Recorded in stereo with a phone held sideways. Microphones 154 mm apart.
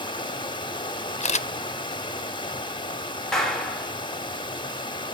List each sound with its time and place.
0.0 s running water: 30° left (ahead or behind), 1.1 m
1.2 s a camera shutter: 50° left (ahead or behind), 0.5 m
3.3 s a clap: 5° left (ahead or behind), 2.5 m